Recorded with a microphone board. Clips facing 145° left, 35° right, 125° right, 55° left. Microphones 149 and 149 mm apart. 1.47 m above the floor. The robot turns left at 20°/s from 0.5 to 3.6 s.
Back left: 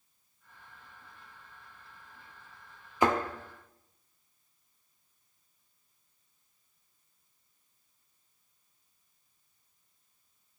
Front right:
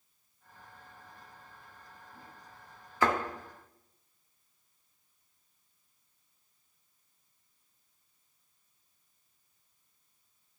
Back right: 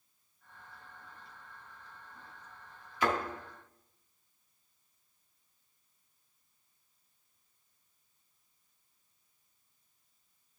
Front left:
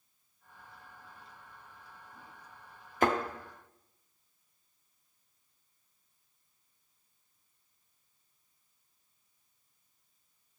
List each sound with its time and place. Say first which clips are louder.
3.0 s a thud: back left 2 dB, front left 3 dB; 80° left, 1.3 m; by 3.1 s 75° left, 1.3 m